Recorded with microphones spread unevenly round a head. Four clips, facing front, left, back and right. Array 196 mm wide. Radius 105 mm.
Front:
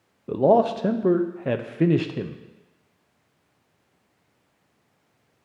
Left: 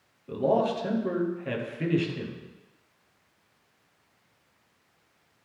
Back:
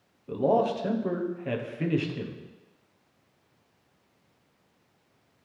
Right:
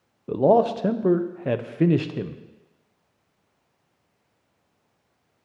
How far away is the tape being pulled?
No tape being pulled in this recording.